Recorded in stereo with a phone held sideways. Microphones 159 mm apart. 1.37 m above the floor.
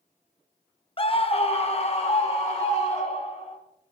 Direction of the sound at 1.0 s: 35° left (ahead or behind).